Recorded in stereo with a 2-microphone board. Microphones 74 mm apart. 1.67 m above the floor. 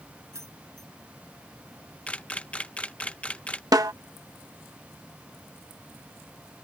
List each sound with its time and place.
0.3 s keys jangling: 40° right (ahead or behind)
2.1 s a camera shutter: 15° left (ahead or behind)
3.7 s a snare drum: 60° right (ahead or behind)